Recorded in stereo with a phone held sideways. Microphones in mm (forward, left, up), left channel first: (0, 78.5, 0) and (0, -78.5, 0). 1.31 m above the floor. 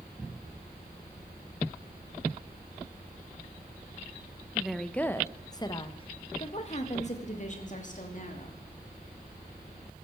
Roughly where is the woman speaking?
Centre.